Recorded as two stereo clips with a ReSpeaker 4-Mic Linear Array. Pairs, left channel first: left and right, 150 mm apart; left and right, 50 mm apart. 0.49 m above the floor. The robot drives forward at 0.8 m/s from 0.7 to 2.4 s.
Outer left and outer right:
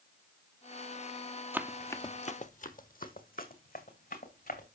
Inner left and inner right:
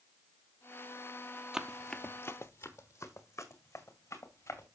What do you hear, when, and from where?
1.5 s running footsteps: 15° right (ahead or behind), 0.9 m; by 4.7 s 80° left, 3 m